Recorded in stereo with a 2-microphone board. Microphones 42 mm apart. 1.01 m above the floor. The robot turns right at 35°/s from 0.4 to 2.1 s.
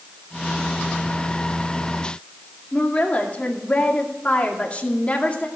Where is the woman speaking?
30° left (ahead or behind), 2.5 m.